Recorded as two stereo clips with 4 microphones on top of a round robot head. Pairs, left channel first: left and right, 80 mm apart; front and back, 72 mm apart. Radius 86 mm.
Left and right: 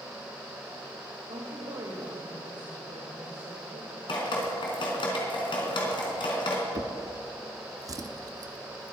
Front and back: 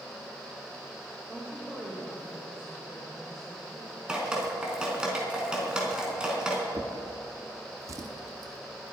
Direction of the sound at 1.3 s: 100° right.